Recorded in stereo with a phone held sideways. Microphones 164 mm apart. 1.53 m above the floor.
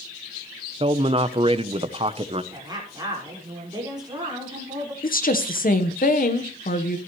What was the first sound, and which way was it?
A man speaking, 35° right (ahead or behind).